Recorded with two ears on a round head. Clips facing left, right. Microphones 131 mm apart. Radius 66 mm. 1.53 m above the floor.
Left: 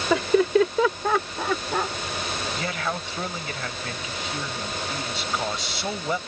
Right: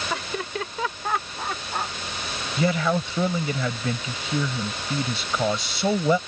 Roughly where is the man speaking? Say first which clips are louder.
Right 12 dB; right.